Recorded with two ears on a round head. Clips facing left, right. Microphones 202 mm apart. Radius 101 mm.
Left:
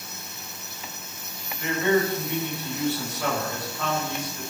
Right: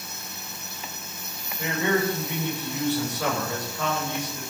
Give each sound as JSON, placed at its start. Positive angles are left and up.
{"t": 1.6, "sound": "a man speaking", "side_deg": -80, "distance_m": 8.5}